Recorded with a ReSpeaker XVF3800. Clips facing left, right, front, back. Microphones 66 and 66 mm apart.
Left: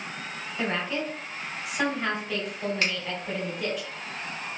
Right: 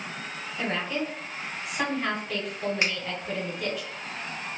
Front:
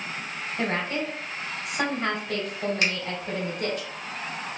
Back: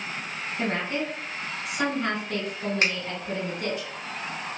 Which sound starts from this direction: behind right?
A finger snap, at 2.8 s.